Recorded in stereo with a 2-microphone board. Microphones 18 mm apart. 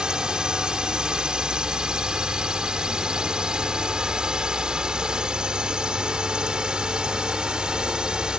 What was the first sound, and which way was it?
A drone, 50° right (ahead or behind).